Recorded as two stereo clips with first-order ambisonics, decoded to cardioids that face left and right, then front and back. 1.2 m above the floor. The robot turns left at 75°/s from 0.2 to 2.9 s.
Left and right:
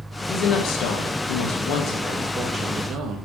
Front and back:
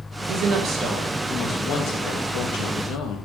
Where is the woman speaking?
155° left, 1.8 m; by 3.2 s 40° right, 1.8 m.